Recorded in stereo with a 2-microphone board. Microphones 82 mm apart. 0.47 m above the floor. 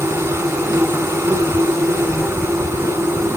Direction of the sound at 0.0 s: 35° right (ahead or behind).